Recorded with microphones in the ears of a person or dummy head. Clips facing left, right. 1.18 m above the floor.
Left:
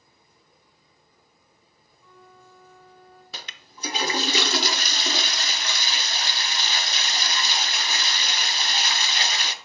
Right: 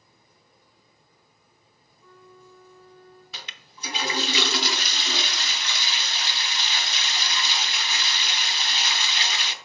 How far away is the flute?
About 1.9 m.